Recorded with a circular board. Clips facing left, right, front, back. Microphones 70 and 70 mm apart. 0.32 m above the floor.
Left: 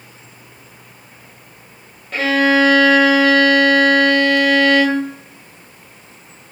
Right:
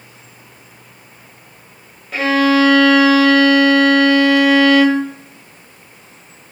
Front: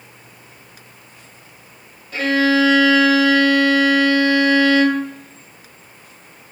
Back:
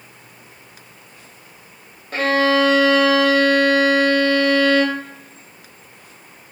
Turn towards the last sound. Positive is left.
turn(degrees=-175)